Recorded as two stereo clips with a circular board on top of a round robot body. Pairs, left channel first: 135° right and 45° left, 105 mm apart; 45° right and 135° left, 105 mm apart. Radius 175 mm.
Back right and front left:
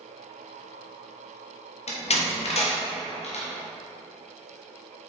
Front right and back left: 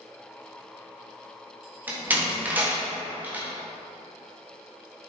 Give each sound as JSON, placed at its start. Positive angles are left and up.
{"t": 1.9, "sound": "a door slam", "azimuth_deg": -150, "distance_m": 1.4}